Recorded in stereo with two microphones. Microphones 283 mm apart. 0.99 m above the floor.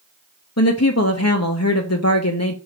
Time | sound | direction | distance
0.6 | a woman speaking | 60° left (ahead or behind) | 1.2 m